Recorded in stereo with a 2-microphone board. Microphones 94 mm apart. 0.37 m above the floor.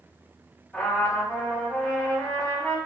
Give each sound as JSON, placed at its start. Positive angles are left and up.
{"t": 0.7, "sound": "a trumpet", "side_deg": 5, "distance_m": 1.0}